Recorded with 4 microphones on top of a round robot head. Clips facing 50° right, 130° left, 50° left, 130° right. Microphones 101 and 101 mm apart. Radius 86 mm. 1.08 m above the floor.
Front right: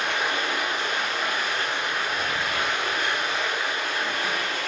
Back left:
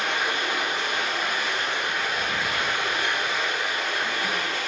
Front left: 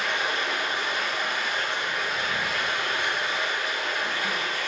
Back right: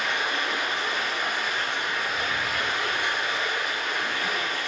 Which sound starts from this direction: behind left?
Running water, at 0.0 s.